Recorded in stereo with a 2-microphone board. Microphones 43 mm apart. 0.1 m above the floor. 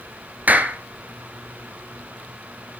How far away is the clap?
About 1.4 m.